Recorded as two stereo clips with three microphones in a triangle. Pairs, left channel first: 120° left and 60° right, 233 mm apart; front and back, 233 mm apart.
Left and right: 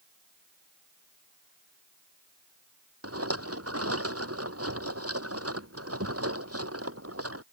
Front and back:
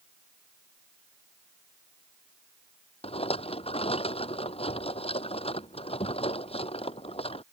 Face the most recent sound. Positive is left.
turn(degrees=-65)